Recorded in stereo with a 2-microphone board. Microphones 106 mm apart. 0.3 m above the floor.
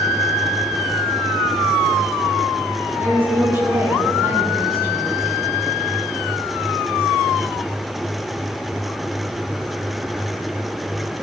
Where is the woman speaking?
20° right (ahead or behind), 4 m.